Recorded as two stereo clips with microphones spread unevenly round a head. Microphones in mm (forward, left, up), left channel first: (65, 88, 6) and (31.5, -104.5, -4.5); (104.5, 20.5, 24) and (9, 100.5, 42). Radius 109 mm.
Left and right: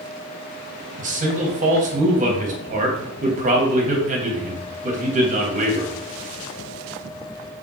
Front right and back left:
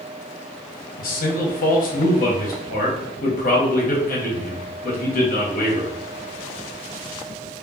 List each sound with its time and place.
1.0 s a man speaking: 45° right, 1.4 m